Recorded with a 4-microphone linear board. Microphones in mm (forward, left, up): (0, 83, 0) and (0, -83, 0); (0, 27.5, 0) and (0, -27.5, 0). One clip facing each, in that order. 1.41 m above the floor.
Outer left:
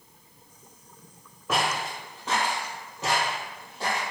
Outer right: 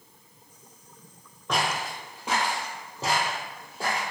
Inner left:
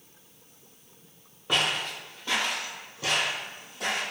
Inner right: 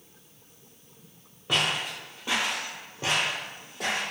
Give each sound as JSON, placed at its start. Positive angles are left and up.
{"t": 1.5, "sound": "footsteps", "side_deg": 5, "distance_m": 1.4}